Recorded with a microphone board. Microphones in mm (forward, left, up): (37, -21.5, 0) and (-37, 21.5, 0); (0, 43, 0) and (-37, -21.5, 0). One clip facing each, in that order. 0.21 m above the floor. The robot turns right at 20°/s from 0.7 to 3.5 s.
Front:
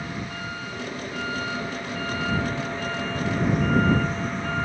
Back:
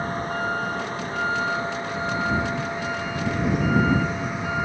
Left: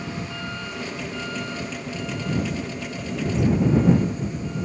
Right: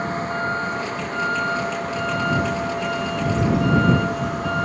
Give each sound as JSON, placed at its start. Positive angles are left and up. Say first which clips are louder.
{"t": 0.0, "sound": "a vehicle", "louder": "back 7 dB, right 8 dB", "azimuth_deg": -160}